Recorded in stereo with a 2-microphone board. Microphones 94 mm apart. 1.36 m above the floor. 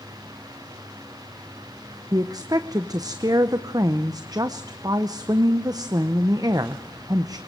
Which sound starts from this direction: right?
A woman speaking, at 2.1 s.